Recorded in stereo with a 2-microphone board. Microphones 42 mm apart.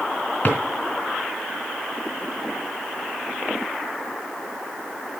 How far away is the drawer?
About 3 m.